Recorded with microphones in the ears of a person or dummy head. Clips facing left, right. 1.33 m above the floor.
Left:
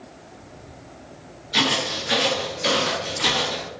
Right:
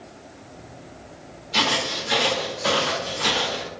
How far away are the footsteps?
About 1.3 m.